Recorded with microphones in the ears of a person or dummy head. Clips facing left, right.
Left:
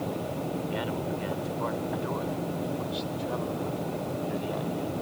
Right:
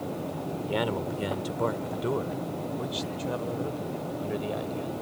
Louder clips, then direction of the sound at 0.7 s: Right 2 dB; 60° right (ahead or behind).